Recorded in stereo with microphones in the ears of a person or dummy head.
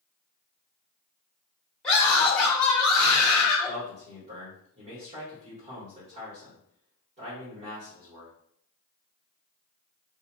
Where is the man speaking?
40° right (ahead or behind), 1.5 m.